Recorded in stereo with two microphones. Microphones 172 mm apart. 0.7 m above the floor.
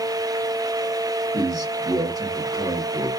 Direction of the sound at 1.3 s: 20° right (ahead or behind).